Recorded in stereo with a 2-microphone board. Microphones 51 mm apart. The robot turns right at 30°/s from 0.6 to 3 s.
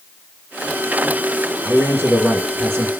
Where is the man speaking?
130° right, 2 m; by 2.9 s 95° right, 2 m.